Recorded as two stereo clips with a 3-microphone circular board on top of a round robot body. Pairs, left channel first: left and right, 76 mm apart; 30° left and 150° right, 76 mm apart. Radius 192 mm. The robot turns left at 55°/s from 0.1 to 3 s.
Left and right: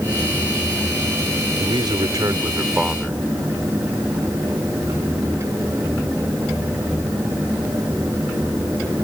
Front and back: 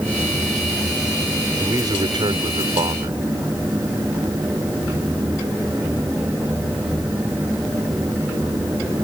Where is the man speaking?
100° right; by 3.2 s 175° right.